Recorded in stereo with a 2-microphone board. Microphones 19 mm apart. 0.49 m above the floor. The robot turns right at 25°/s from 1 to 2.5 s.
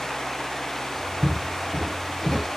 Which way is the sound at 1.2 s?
40° left (ahead or behind).